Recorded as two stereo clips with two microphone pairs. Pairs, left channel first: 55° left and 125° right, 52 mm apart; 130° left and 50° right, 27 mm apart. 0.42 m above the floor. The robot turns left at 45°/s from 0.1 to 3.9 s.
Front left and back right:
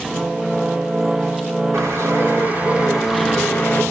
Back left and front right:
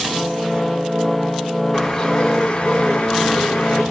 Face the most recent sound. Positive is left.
turn(degrees=115)